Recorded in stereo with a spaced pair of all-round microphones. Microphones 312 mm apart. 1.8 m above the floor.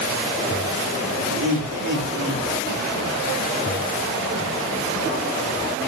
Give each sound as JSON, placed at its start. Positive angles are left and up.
{"t": 1.3, "sound": "laughter", "side_deg": -80, "distance_m": 5.5}